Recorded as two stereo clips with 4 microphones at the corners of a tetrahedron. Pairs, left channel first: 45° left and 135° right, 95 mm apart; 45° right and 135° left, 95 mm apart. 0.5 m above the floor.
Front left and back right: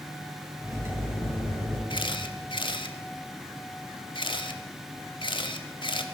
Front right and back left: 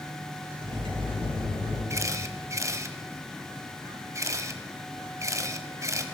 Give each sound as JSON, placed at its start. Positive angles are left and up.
{"t": 0.6, "sound": "cutlery clinking", "azimuth_deg": 160, "distance_m": 6.0}
{"t": 1.9, "sound": "a camera shutter", "azimuth_deg": 75, "distance_m": 0.9}